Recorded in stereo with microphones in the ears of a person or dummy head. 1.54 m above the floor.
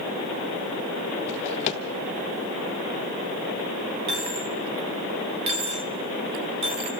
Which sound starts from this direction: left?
A drawer, at 1.3 s.